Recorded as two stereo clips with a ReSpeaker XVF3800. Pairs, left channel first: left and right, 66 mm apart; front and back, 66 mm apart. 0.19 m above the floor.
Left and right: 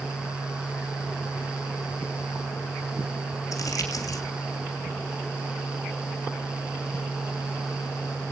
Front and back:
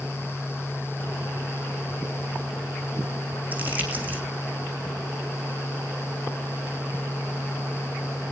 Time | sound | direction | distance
3.5 | crumpling | 115° left | 3 m